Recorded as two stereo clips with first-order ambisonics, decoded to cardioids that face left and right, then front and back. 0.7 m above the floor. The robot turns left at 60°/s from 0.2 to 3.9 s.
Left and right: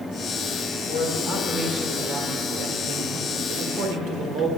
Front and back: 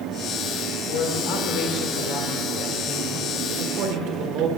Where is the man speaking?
40° left, 1.7 m; by 4.5 s 140° right, 1.7 m.